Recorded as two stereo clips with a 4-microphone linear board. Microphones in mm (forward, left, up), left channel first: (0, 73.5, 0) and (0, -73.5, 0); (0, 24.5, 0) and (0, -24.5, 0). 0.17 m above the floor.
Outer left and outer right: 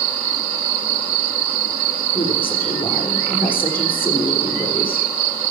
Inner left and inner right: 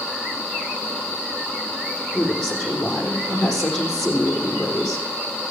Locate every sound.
2.1 s a woman speaking: 10° left (ahead or behind), 6 m